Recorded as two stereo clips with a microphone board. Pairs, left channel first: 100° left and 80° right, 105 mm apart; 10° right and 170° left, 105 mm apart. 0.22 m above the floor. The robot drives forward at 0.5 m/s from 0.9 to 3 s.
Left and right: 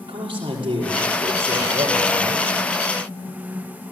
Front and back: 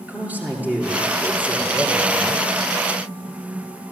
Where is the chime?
No chime in this recording.